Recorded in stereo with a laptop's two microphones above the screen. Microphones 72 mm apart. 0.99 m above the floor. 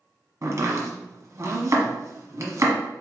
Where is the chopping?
45° right (ahead or behind), 1.3 m.